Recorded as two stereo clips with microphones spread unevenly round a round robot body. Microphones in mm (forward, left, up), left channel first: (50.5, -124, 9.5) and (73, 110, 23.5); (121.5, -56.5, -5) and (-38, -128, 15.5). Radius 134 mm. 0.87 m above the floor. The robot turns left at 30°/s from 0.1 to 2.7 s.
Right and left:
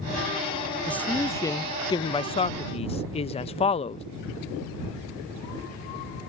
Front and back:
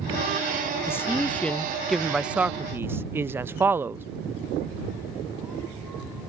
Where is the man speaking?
25° right; by 4.0 s 80° right.